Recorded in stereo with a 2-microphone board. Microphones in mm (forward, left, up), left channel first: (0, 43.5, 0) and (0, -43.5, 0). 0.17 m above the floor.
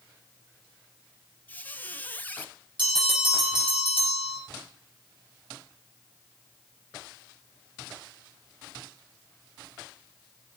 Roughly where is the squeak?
Left.